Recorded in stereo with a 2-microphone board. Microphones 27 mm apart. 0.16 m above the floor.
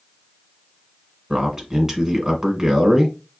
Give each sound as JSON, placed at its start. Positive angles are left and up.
{"t": 1.3, "sound": "a man speaking", "side_deg": -15, "distance_m": 1.5}